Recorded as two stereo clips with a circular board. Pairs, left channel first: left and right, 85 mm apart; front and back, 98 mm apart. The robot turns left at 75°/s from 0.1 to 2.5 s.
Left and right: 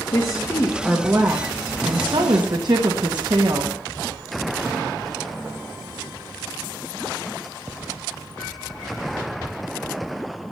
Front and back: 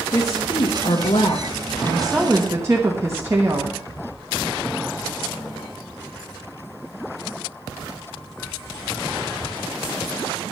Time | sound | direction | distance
0.1 | a woman speaking | 55° left | 1.2 m